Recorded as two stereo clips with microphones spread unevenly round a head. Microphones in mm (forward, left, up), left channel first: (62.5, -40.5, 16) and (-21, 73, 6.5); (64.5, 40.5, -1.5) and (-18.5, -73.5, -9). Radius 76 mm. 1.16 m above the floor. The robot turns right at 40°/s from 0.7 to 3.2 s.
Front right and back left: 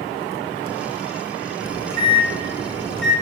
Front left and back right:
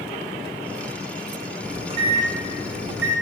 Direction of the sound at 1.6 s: 165° left.